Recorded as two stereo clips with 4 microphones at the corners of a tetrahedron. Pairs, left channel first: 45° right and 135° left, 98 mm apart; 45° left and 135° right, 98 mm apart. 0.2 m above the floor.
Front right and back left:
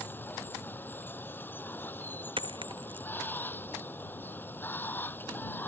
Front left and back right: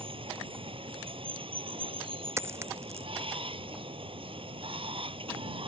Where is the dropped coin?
165° left.